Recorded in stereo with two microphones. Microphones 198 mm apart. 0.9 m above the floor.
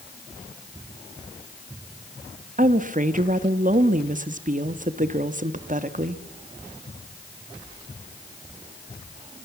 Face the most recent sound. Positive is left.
turn(degrees=-40)  # may be behind; listen again after turning